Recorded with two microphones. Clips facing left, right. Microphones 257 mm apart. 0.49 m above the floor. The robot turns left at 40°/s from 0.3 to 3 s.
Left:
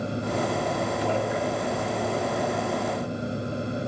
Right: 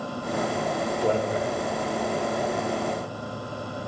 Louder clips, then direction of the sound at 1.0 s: Right 4 dB; 50° right (ahead or behind).